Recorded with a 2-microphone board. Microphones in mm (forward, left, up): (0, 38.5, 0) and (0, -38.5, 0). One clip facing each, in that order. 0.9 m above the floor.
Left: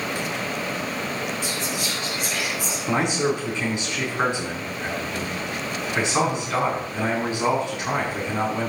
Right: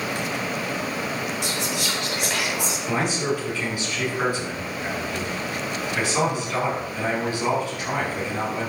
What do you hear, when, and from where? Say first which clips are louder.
1.4 s whispering: right 1 dB; 80° right, 3.5 m
2.9 s a man speaking: left 3 dB; 25° left (ahead or behind), 7 m